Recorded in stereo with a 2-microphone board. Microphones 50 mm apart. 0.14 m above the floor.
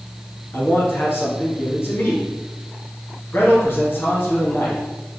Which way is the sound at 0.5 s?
50° left (ahead or behind).